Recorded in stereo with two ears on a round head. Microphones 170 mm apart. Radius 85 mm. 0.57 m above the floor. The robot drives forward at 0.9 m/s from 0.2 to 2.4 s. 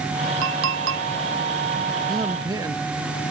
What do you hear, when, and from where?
0.4 s a clink: 80° right; by 1.1 s 75° right (ahead or behind)
2.1 s a man speaking: 20° right (ahead or behind)